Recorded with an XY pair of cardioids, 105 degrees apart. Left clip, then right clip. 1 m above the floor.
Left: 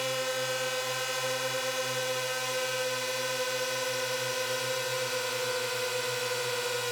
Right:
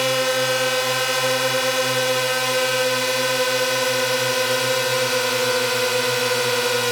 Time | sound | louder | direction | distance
0.0 | a drone | right 11 dB | 70° right | ?